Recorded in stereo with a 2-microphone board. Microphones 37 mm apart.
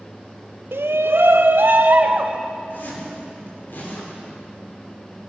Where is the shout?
85° right, 0.8 m; by 2.4 s 50° right (ahead or behind), 1.9 m.